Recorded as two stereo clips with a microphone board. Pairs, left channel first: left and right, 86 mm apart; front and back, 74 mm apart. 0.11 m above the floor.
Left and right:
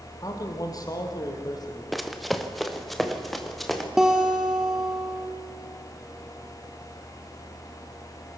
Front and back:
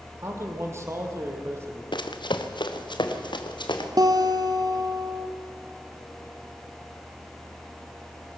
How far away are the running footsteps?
About 1.6 m.